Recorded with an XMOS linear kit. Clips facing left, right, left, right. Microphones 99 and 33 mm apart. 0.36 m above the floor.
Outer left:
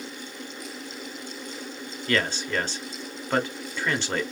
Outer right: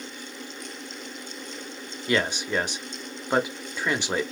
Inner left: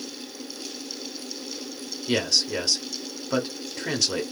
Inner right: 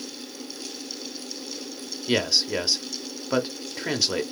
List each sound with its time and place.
2.1 s a man speaking: 15° right (ahead or behind), 0.8 m